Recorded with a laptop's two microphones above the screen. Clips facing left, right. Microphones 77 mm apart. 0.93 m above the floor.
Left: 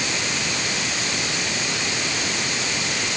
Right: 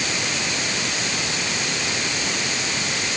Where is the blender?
I don't hear a blender.